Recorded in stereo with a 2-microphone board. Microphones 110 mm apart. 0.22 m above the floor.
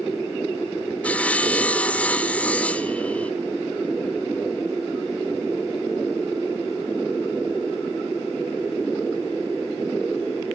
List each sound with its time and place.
1.0 s sawing: 10° left (ahead or behind), 0.8 m